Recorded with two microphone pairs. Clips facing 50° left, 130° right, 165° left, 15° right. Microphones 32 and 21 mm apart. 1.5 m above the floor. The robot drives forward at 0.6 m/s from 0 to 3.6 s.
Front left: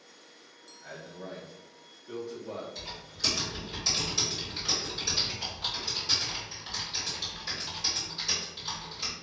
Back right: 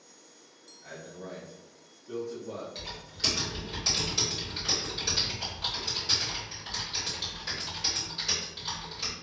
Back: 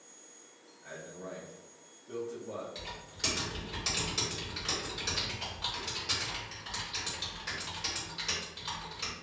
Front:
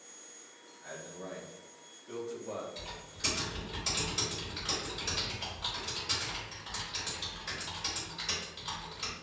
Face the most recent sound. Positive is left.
turn(degrees=-175)